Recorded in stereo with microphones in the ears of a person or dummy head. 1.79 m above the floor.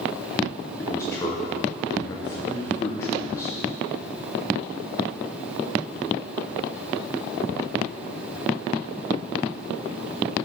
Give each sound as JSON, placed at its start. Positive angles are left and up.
{"t": 0.8, "sound": "a man speaking", "side_deg": 10, "distance_m": 0.7}